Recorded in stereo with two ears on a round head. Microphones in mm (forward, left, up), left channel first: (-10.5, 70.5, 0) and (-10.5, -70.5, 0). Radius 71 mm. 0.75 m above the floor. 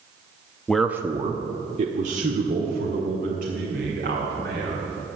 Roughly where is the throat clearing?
I don't hear throat clearing.